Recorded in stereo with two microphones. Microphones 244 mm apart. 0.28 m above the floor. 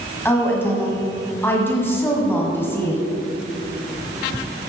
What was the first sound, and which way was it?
A woman speaking, 10° left (ahead or behind).